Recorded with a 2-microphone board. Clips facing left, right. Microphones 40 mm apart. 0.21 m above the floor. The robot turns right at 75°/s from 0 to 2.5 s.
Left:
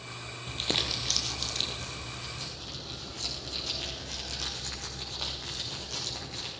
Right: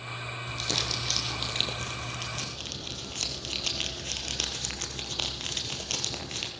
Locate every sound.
0.5 s crumpling: 135° left, 3 m; by 6.5 s 75° right, 3 m